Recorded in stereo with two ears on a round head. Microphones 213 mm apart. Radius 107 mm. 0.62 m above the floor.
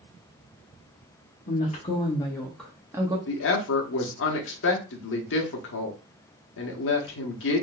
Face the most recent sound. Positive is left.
turn(degrees=55)  # may be behind; listen again after turning